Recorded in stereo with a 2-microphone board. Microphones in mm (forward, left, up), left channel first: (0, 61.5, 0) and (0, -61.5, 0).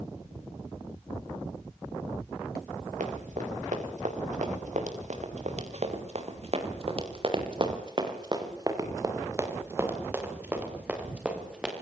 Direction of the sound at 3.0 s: 85° right.